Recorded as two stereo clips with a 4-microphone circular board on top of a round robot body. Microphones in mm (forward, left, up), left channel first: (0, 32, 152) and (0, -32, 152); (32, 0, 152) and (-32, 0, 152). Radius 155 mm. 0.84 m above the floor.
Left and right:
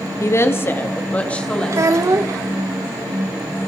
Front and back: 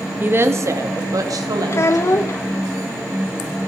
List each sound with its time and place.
0.2 s a woman speaking: 125° left, 2.0 m; by 2.2 s 170° left, 4 m
1.7 s a child speaking: 50° right, 0.6 m